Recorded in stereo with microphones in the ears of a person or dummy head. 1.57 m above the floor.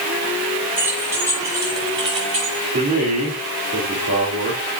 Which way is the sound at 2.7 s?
50° right (ahead or behind).